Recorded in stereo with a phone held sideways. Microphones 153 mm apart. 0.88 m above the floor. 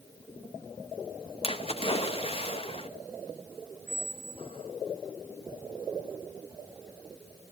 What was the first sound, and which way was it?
A splash, 35° left (ahead or behind).